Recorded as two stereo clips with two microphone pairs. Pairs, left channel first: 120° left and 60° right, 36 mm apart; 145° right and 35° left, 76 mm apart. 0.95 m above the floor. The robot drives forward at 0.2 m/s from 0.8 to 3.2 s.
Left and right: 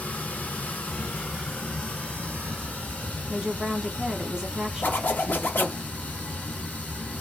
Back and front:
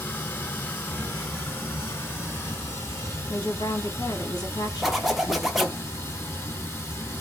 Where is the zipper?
120° left, 0.6 m.